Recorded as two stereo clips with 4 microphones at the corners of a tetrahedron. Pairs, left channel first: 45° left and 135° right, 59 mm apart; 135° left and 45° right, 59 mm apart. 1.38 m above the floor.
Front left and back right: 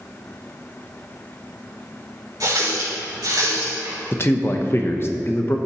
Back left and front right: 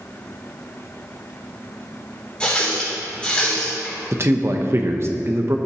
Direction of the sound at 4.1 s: Straight ahead.